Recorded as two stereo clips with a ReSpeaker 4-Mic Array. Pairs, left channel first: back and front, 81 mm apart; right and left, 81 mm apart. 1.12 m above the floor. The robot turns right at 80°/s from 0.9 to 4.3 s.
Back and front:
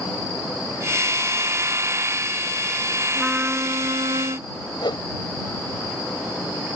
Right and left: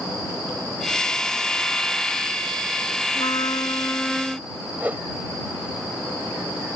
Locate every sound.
3.1 s a trumpet: 90° right; by 4.5 s straight ahead
4.8 s a whoosh: 160° left